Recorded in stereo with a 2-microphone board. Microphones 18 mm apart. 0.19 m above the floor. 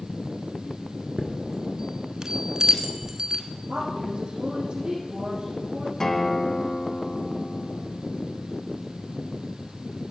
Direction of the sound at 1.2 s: 45° right (ahead or behind).